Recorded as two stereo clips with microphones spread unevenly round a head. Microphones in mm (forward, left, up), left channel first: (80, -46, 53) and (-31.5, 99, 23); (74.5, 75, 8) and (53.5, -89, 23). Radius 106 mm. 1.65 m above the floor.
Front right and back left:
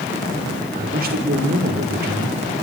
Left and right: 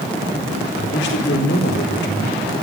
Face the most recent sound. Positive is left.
turn(degrees=105)